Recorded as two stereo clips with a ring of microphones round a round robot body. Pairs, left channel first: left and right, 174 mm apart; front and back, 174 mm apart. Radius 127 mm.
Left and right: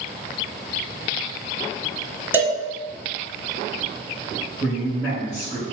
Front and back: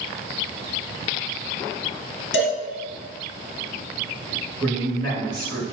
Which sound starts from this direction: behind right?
A man speaking, at 4.6 s.